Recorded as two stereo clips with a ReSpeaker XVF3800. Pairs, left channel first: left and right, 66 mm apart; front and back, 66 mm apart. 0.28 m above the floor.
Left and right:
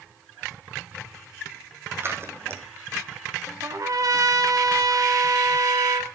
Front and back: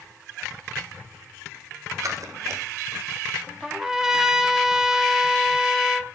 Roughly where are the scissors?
Behind right.